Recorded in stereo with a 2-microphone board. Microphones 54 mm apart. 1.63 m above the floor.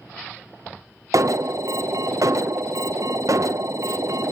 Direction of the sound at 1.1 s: 75° right (ahead or behind).